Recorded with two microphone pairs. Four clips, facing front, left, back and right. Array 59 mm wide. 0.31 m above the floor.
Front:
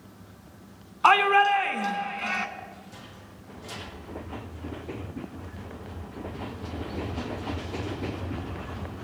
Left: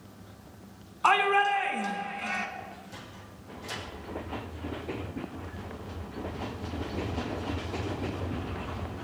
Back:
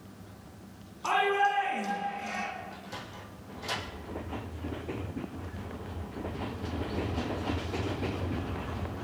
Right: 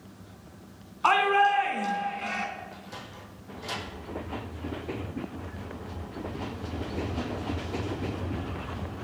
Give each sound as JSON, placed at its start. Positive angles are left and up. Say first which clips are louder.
{"t": 1.0, "sound": "a shout", "louder": "right 2 dB, front 7 dB", "azimuth_deg": 0, "distance_m": 2.5}
{"t": 2.7, "sound": "a sliding door", "louder": "right 2 dB, back 3 dB", "azimuth_deg": -140, "distance_m": 5.5}